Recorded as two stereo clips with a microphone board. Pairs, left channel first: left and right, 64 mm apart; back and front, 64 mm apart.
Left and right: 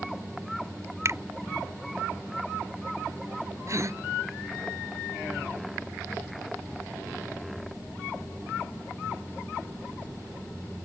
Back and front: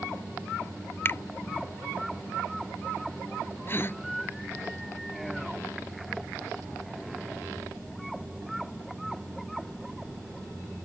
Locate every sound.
1.1 s a finger snap: 130° right
3.7 s a gasp: 130° right